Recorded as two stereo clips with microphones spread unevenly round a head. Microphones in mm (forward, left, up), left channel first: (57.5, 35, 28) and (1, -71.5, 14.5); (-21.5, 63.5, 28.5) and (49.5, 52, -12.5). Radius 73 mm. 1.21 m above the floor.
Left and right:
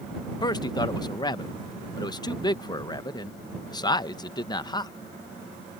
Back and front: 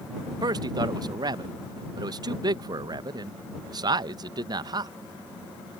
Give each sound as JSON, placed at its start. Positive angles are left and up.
{"t": 0.4, "sound": "a man speaking", "azimuth_deg": 5}